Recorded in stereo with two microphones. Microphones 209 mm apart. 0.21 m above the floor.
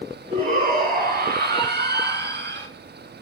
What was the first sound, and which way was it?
A shout, 40° right (ahead or behind).